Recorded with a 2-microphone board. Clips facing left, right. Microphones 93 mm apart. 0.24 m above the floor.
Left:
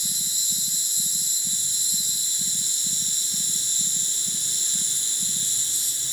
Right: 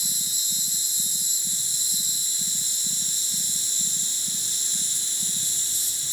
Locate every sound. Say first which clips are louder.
0.0 s an insect: even; 5° right (ahead or behind), 1.9 m